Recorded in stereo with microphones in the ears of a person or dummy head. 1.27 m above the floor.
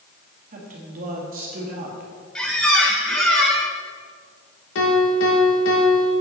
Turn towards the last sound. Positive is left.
turn(degrees=75)  # may be behind; listen again after turning